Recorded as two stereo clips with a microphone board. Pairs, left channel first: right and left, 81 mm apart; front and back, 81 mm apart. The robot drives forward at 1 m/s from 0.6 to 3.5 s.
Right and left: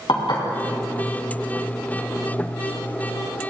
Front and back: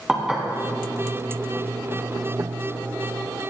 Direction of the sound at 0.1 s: 105° right.